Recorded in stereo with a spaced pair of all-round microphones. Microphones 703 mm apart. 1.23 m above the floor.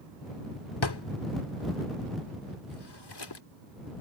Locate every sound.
0.8 s a drawer: 35° left (ahead or behind)